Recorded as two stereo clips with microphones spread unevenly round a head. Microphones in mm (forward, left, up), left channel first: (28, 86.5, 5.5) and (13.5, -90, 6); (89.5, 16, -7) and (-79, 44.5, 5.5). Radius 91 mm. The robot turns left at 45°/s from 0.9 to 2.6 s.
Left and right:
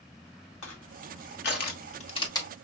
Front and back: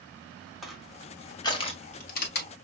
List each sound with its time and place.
0.6 s crushing: 85° left, 1.6 m; by 2.5 s 10° left, 1.6 m